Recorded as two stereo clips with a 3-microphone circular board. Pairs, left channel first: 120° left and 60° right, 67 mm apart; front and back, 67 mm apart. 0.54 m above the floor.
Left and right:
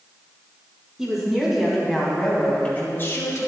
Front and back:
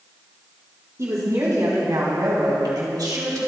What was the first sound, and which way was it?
A woman speaking, 140° right.